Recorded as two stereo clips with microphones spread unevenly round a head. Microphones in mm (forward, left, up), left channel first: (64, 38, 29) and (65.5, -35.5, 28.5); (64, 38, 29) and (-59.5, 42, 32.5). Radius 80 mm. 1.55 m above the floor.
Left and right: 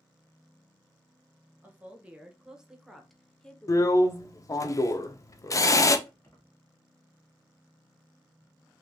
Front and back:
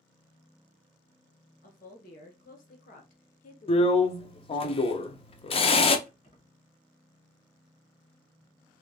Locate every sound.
1.6 s a woman speaking: 20° right, 1.7 m; by 4.7 s 55° left, 0.8 m
3.7 s a drill: 45° left, 0.6 m
6.1 s keys jangling: 35° left, 1.7 m